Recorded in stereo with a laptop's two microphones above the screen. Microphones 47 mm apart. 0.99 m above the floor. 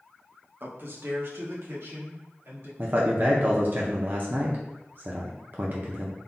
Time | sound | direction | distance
0.6 | a man speaking | 45° right (ahead or behind) | 0.8 m
2.8 | a man speaking | 45° right (ahead or behind) | 0.5 m